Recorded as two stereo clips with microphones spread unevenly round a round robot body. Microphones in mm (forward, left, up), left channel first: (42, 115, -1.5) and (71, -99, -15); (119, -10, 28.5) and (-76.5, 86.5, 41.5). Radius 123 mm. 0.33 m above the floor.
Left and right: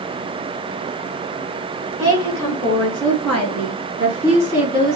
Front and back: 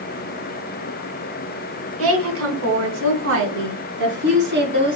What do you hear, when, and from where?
2.0 s a woman speaking: 175° left, 3.5 m; by 5.0 s 160° right, 4 m